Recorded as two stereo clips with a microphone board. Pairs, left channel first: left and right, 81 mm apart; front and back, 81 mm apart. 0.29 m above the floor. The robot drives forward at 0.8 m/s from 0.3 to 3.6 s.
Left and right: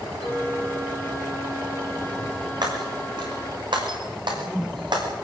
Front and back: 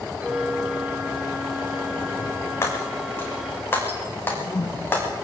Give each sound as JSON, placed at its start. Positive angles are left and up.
{"t": 0.2, "sound": "a clink", "azimuth_deg": -105, "distance_m": 3.5}
{"t": 2.6, "sound": "breaking glass", "azimuth_deg": -60, "distance_m": 9.0}
{"t": 4.2, "sound": "a whoosh", "azimuth_deg": -5, "distance_m": 1.9}